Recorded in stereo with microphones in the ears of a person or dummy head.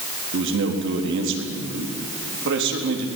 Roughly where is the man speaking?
Right.